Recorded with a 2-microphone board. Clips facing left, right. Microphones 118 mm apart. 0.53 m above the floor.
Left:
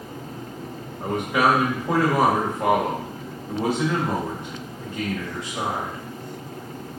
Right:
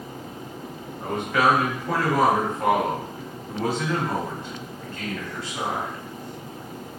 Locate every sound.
1.0 s a man speaking: 15° left (ahead or behind), 1.1 m